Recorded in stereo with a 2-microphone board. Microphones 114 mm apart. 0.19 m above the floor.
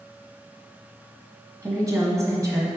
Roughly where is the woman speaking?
Right.